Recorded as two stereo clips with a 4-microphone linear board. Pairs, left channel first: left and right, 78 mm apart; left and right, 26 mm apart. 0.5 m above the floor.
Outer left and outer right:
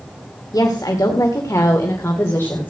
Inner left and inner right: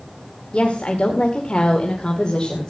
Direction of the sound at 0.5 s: 50° left (ahead or behind).